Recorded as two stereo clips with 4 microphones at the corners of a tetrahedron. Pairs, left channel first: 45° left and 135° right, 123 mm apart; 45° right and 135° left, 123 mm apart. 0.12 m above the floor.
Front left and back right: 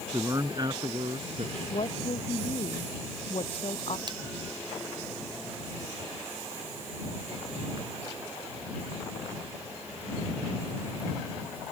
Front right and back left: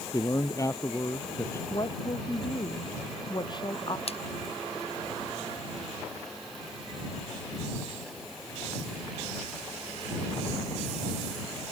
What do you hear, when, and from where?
0.1 s a man speaking: 85° right; by 1.6 s 110° right
1.7 s a woman speaking: 5° left
4.1 s a splash: 80° right